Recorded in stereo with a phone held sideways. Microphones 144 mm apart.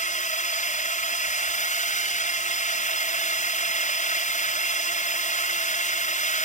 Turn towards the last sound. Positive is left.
turn(degrees=60)  # may be behind; listen again after turning